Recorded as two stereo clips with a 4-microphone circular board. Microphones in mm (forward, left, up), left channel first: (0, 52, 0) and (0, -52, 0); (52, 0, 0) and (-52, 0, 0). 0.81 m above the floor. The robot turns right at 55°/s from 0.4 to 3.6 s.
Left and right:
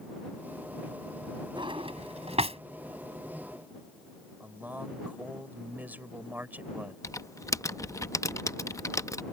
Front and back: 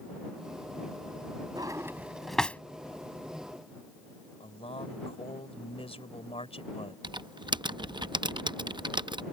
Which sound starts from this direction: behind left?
Typing on a keyboard, at 7.0 s.